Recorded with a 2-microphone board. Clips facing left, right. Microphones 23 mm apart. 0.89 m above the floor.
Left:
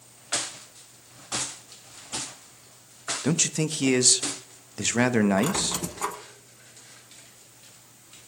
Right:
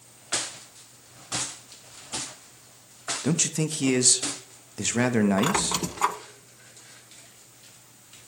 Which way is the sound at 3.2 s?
10° left (ahead or behind).